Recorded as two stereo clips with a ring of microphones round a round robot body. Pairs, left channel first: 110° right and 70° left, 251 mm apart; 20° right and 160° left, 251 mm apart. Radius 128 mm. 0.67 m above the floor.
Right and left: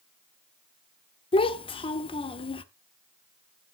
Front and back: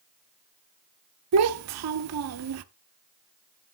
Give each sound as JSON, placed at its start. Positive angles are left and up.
{"t": 1.3, "sound": "a child speaking", "azimuth_deg": 180, "distance_m": 0.9}